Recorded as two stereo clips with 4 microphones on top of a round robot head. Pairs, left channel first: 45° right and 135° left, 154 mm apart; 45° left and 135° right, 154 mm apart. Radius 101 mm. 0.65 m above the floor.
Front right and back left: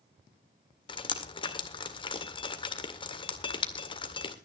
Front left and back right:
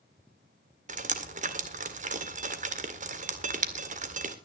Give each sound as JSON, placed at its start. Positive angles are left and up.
{"t": 0.9, "sound": "dripping", "azimuth_deg": -100, "distance_m": 1.9}